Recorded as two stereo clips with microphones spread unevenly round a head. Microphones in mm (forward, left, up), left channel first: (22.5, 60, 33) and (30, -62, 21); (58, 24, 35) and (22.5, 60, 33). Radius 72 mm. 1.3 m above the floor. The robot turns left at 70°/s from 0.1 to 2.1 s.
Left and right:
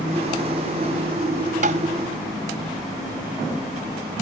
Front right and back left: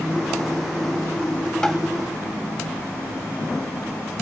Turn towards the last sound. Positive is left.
turn(degrees=-160)